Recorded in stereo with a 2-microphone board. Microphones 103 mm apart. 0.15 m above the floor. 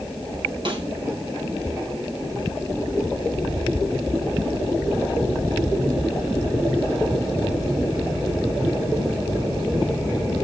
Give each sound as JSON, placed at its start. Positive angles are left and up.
{"t": 0.7, "sound": "a snare drum", "side_deg": -50, "distance_m": 3.0}